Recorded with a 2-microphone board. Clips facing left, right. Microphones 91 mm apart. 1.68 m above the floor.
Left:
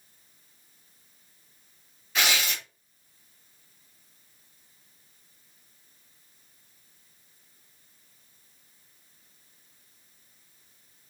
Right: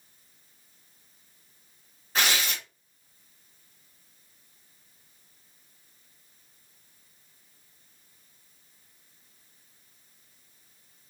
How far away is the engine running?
I don't hear an engine running.